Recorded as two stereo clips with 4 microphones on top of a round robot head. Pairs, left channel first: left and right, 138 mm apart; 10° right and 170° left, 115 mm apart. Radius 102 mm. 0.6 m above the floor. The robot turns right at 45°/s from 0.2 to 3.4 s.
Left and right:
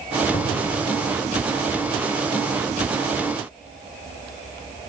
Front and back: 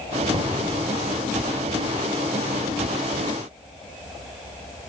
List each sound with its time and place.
0.3 s knocking: 100° left, 2.5 m; by 0.7 s 115° left, 2.5 m